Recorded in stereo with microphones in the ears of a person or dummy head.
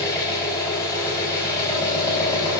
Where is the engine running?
20° left (ahead or behind), 3 m.